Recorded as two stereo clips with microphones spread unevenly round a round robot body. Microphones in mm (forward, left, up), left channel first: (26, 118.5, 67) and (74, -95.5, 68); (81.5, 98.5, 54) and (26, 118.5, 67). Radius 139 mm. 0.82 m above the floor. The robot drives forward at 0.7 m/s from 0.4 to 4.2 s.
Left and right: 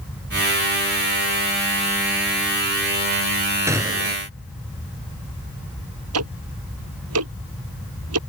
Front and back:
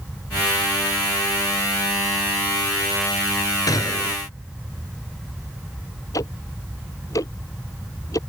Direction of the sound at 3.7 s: Straight ahead.